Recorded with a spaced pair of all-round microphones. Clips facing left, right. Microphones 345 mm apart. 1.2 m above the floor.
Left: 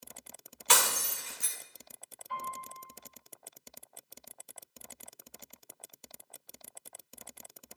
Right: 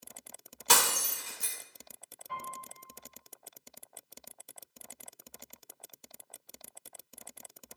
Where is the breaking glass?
55° right (ahead or behind), 2 m.